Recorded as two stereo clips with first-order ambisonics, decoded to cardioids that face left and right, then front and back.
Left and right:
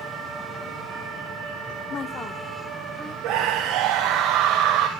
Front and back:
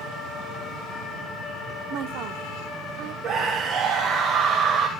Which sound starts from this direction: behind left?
A woman speaking, at 1.9 s.